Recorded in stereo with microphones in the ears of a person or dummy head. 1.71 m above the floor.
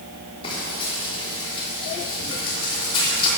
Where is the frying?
35° left (ahead or behind), 4.5 m.